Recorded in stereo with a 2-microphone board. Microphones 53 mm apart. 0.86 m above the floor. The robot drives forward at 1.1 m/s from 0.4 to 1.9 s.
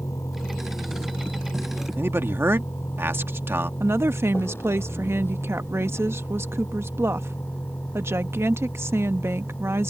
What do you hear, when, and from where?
0.0 s a vehicle: 75° left (ahead or behind); by 9.9 s 35° left (ahead or behind)
2.0 s a man speaking: 50° right (ahead or behind)
3.8 s a woman speaking: 55° right (ahead or behind)